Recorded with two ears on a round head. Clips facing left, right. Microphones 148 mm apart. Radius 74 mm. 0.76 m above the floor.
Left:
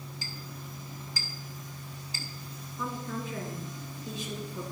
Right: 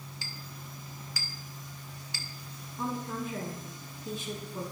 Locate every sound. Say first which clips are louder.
0.2 s a clink: left 3 dB; 55° right (ahead or behind), 1.3 m
2.8 s a woman speaking: right 2 dB; 40° right (ahead or behind), 6 m